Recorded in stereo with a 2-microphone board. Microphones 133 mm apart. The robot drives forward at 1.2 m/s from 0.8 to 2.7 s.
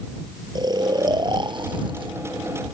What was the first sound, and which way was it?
Snoring, 35° right (ahead or behind).